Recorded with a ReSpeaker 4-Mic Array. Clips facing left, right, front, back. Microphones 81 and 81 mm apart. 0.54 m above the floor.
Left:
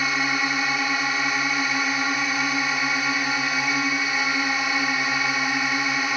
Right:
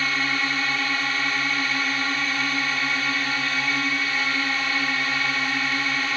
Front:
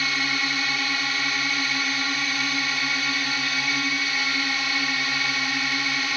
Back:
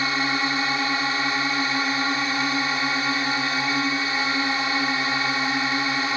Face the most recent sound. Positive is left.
turn(degrees=155)